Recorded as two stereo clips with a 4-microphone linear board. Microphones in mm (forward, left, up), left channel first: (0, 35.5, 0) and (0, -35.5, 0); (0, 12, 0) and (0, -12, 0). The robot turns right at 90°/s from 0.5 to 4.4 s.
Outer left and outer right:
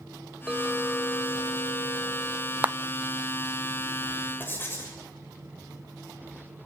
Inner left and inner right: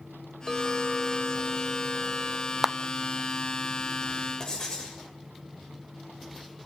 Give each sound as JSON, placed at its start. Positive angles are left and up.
{"t": 0.5, "sound": "a clink", "azimuth_deg": -10, "distance_m": 2.5}
{"t": 2.6, "sound": "a clap", "side_deg": -20, "distance_m": 0.6}
{"t": 4.4, "sound": "writing", "side_deg": 30, "distance_m": 6.0}